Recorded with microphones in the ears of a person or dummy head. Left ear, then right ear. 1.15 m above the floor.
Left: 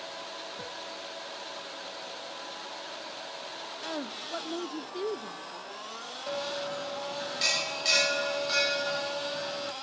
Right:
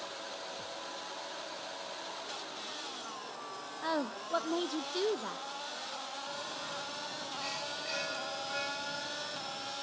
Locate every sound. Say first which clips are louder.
3.8 s a woman speaking: right 3 dB; 20° right (ahead or behind), 0.6 m
6.3 s a bell: left 6 dB; 75° left (ahead or behind), 1.4 m